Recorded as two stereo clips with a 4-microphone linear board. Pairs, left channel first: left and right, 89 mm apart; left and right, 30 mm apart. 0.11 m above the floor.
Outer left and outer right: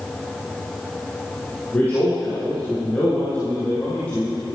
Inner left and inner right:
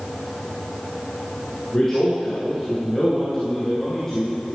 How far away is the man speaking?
About 3 m.